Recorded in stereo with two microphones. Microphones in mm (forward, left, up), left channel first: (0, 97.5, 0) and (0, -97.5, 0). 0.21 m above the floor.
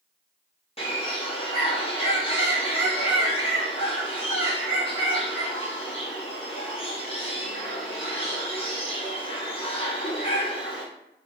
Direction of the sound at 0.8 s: 30° left (ahead or behind).